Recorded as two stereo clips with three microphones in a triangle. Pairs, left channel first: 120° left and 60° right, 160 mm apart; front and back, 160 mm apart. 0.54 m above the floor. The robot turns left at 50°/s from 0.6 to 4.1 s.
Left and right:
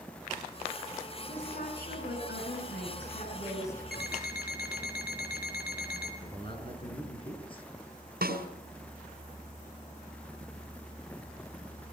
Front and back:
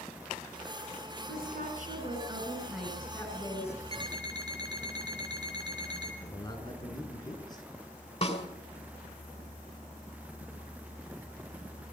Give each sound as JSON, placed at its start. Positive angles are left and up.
{"t": 1.3, "sound": "a woman speaking", "azimuth_deg": 170, "distance_m": 5.5}
{"t": 3.9, "sound": "an alarm clock", "azimuth_deg": 125, "distance_m": 3.0}
{"t": 6.2, "sound": "a man speaking", "azimuth_deg": 65, "distance_m": 6.0}
{"t": 8.2, "sound": "a snare drum", "azimuth_deg": -50, "distance_m": 4.0}